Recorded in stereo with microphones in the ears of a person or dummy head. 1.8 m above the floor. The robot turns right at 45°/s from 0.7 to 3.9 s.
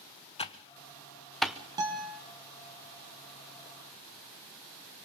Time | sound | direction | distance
0.4 | typing on a keyboard | 30° left (ahead or behind) | 1.0 m
1.8 | a guitar | 20° right (ahead or behind) | 2.5 m